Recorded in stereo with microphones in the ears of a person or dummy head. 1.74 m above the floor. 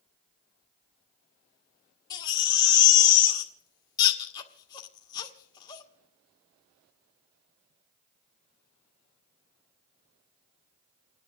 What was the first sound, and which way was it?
A baby crying, 25° left (ahead or behind).